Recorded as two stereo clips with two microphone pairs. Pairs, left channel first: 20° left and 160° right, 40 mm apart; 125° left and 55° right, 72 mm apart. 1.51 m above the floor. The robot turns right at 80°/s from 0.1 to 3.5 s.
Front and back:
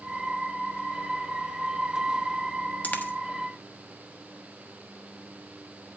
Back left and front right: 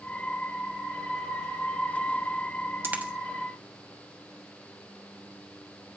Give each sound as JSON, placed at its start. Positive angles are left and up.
{"t": 2.8, "sound": "a dropped coin", "azimuth_deg": -10, "distance_m": 1.2}